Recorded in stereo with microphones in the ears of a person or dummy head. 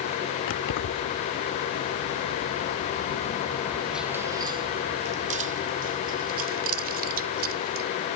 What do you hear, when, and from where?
0.5 s keys jangling: 75° left (ahead or behind); by 7.9 s 50° right (ahead or behind)